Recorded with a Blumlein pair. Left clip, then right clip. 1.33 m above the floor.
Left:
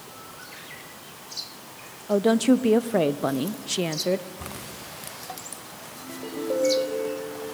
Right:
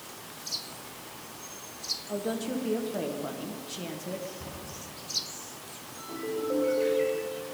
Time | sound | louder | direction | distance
2.1 | a woman speaking | left 16 dB | 35° left | 0.5 m
4.4 | a cupboard door | left 4 dB | 10° left | 5.5 m
6.0 | a ringtone | right 1 dB | 10° left | 4 m